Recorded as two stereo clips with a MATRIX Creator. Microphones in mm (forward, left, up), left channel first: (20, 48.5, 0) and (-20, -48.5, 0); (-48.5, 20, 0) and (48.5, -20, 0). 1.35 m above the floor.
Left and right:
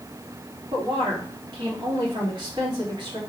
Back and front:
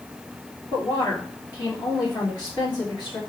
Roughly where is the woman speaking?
Behind right.